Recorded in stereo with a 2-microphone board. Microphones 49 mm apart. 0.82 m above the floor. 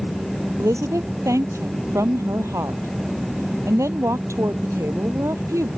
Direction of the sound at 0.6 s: 80° right.